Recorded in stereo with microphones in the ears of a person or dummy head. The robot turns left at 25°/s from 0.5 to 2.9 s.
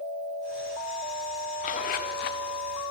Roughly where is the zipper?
Left.